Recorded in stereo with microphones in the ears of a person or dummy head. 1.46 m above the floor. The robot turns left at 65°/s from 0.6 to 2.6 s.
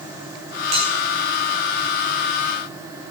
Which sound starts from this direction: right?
A bell, at 0.7 s.